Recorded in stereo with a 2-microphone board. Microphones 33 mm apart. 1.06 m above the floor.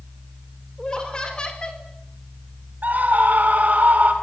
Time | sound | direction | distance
0.8 | laughter | 25° left (ahead or behind) | 4.5 m
2.8 | a scream | 55° right (ahead or behind) | 5.5 m